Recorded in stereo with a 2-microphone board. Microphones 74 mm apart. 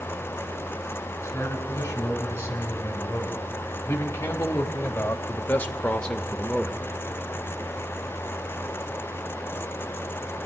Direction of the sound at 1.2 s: 35° left (ahead or behind).